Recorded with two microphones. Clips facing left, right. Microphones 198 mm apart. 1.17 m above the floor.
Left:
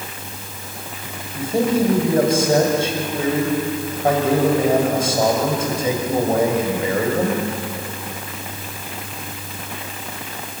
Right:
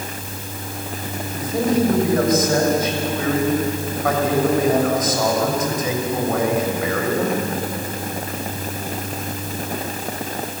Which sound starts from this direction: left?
A man speaking, at 1.4 s.